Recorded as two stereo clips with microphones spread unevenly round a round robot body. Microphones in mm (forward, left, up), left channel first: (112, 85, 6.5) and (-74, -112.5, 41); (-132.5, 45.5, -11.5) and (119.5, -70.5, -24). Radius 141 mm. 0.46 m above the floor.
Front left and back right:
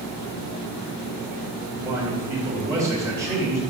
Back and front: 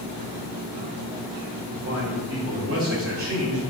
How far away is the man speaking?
About 2 m.